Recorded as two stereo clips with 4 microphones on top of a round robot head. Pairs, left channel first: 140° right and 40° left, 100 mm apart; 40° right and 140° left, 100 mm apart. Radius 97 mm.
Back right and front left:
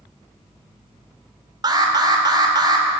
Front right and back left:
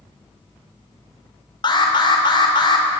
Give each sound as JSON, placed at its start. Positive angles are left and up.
{"t": 1.6, "sound": "an alarm", "azimuth_deg": -5, "distance_m": 2.5}